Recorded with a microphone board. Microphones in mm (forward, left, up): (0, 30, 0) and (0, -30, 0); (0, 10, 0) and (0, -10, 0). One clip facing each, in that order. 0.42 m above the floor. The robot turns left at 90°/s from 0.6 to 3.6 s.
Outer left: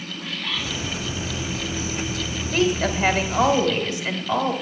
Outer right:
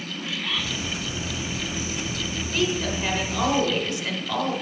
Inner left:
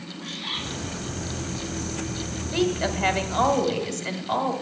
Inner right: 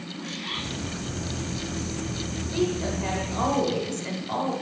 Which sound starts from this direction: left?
A bird, at 0.2 s.